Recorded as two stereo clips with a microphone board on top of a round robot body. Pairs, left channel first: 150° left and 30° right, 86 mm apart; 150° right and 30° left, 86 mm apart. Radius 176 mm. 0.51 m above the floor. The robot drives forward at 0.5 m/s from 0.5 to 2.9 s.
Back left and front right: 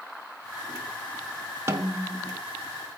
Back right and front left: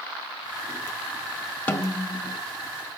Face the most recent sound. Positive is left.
turn(degrees=-115)